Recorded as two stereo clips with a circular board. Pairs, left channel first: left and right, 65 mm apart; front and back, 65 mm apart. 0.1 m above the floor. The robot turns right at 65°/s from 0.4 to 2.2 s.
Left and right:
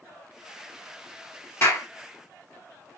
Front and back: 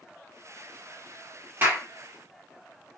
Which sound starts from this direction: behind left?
A clap, at 1.6 s.